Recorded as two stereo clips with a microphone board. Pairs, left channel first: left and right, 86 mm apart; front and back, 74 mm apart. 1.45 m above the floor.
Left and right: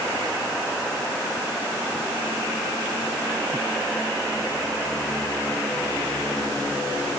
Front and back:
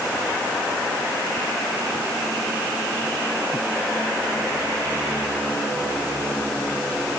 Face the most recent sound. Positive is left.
No sound to turn to.